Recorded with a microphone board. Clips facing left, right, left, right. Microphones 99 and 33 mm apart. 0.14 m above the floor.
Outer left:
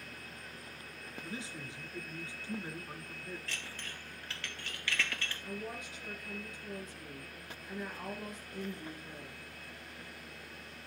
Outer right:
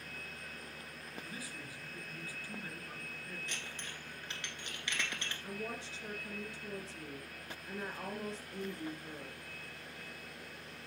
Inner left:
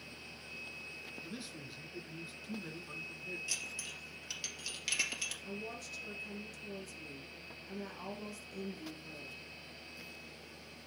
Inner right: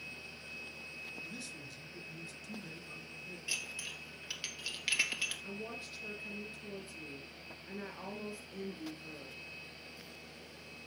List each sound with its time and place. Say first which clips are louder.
1.2 s a man speaking: outer left 3 dB, inner right 1 dB; 20° left (ahead or behind), 1.9 m
3.5 s dishes clattering: outer left 1 dB, inner right 2 dB; 20° right (ahead or behind), 2 m
5.4 s a woman speaking: outer right 1 dB, even; 30° right (ahead or behind), 3 m